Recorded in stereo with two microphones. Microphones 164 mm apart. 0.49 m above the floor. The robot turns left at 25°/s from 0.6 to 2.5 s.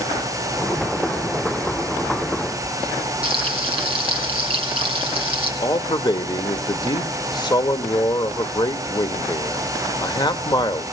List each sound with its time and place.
3.2 s frying: 35° right (ahead or behind), 3 m
5.6 s a man speaking: 30° left (ahead or behind), 1.3 m